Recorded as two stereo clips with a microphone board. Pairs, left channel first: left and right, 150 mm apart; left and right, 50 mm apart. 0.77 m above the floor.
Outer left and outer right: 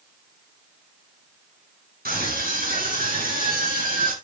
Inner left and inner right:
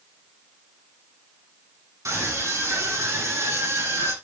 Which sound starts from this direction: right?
A scream, at 2.0 s.